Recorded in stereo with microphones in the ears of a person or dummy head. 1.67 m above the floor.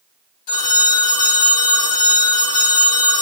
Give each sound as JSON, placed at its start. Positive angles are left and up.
{"t": 0.5, "sound": "a phone ringing", "side_deg": 60, "distance_m": 1.4}